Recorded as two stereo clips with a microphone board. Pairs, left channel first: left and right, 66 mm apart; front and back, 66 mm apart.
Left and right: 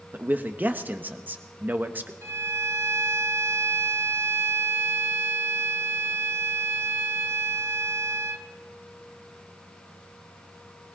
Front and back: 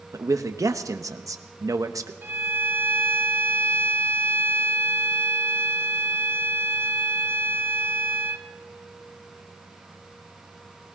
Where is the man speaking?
150° right, 1.1 m.